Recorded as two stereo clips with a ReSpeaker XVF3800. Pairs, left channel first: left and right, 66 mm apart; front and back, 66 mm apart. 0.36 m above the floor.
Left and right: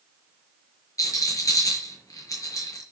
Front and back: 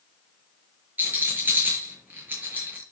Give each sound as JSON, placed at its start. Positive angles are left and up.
{"t": 1.0, "sound": "a rattle", "azimuth_deg": 120, "distance_m": 5.5}